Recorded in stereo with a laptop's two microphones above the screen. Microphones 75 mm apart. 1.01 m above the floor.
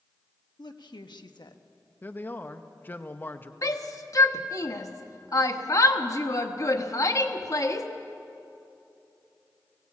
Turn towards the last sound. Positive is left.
turn(degrees=50)  # may be behind; listen again after turning